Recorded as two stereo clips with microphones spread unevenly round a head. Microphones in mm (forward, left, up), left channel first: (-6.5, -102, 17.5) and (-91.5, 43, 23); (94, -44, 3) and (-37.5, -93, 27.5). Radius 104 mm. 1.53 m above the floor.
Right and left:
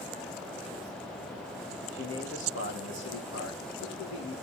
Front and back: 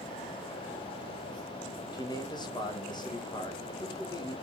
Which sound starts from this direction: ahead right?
A man speaking, at 1.9 s.